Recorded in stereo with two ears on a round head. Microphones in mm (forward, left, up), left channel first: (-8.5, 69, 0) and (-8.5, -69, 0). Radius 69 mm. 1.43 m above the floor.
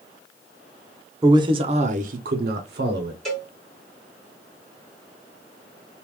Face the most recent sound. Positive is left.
turn(degrees=5)  # may be behind; listen again after turning